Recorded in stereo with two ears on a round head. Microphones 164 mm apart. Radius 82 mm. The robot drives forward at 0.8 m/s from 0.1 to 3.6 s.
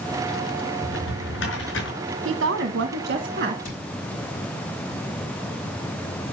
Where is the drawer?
75° left (ahead or behind), 5.5 m; by 1.9 s 70° left (ahead or behind), 5.5 m.